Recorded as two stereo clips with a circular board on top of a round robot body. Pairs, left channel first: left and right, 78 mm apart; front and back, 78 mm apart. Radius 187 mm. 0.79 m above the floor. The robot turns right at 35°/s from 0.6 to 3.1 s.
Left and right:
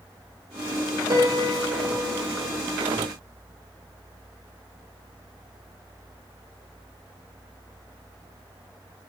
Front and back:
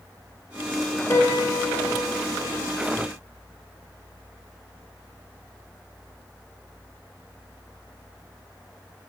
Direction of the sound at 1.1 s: 50° right.